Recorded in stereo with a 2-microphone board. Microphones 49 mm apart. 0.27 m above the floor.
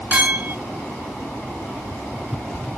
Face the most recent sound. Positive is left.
turn(degrees=-25)  # may be behind; listen again after turning